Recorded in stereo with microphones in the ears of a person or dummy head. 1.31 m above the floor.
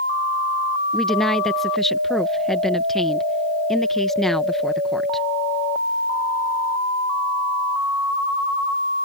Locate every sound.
0.9 s a woman speaking: centre (ahead or behind)